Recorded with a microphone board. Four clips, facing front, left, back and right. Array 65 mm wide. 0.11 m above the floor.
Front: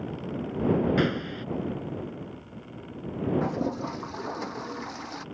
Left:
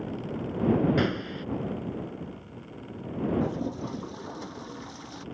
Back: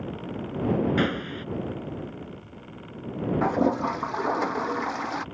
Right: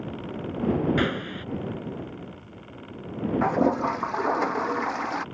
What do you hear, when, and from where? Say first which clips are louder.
1.0 s a gunshot: right 1 dB, even; 115° right
3.4 s a toilet flushing: right 9 dB, back 6 dB; 120° right